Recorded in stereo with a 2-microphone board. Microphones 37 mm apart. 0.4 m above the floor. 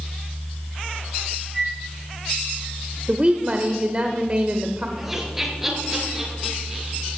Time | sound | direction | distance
1.5 | a flute | 5° right (ahead or behind) | 6 m
3.1 | a woman speaking | 35° right (ahead or behind) | 1.4 m
5.0 | laughter | 10° right (ahead or behind) | 5.5 m